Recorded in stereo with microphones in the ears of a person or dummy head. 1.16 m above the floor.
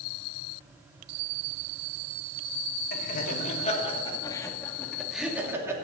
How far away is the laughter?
About 3 m.